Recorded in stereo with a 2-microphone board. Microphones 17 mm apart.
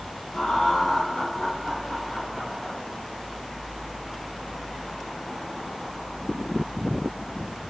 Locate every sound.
0.3 s laughter: 60° left (ahead or behind), 3.5 m; by 2.8 s 20° left (ahead or behind), 3.5 m